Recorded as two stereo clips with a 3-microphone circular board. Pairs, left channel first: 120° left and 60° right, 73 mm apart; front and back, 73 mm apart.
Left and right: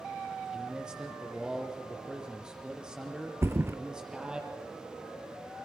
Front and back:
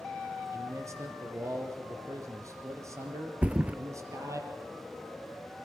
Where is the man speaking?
140° right, 4.5 m.